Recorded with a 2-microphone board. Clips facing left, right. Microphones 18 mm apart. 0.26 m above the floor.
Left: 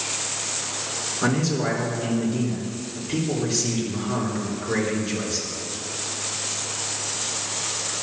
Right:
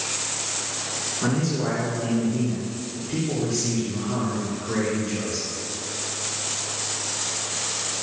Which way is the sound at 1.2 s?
25° left (ahead or behind).